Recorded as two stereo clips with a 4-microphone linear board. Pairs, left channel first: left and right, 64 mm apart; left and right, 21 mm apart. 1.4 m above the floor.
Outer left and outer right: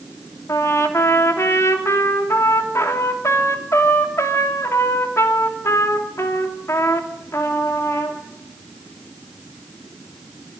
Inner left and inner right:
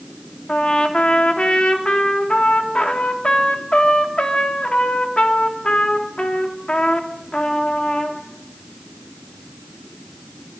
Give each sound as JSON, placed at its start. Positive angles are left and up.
{"t": 0.5, "sound": "a trumpet", "side_deg": 45, "distance_m": 3.0}